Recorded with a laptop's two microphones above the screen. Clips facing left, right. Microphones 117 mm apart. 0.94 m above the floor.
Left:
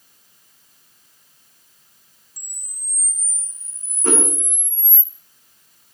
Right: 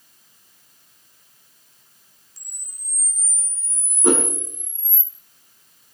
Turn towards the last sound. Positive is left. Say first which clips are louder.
# right 3 dB
turn(degrees=-15)  # may be behind; listen again after turning